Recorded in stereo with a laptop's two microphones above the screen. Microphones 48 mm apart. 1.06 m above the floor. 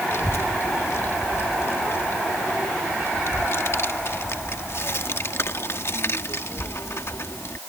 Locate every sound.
0.1 s a child speaking: 55° left (ahead or behind)